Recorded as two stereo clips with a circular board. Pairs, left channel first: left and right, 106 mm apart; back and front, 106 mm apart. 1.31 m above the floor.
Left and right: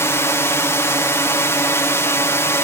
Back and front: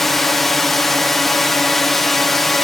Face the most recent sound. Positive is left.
turn(degrees=95)